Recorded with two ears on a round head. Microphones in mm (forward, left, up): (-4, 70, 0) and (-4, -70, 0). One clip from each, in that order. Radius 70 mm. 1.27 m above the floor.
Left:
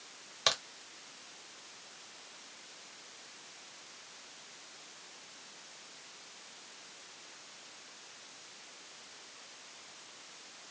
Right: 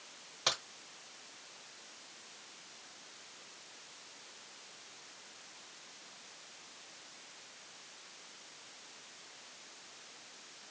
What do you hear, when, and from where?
0.5 s a crack: 45° left (ahead or behind), 1.7 m